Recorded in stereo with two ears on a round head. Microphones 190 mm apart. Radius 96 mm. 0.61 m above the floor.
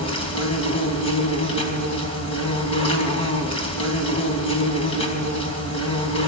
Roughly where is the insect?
Left.